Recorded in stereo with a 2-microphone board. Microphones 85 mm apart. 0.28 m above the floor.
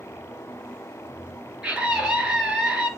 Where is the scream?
10° right (ahead or behind), 5.5 m.